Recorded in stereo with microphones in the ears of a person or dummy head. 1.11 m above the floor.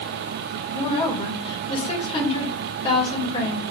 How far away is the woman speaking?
About 2.5 m.